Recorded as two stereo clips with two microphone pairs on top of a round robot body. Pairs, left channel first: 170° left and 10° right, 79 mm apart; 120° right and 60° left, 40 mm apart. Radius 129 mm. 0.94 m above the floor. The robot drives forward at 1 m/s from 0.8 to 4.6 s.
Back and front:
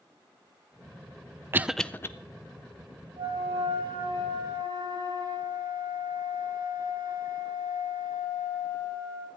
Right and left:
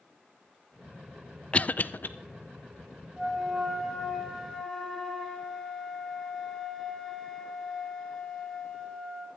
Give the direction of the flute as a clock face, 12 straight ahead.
1 o'clock.